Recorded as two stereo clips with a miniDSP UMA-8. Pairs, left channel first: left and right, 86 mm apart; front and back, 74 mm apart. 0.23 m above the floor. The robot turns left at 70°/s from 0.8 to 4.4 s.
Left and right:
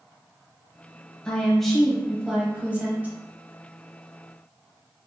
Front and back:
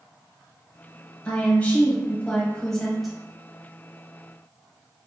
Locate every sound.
1.2 s a woman speaking: 35° left, 1.1 m; by 3.2 s 100° right, 1.1 m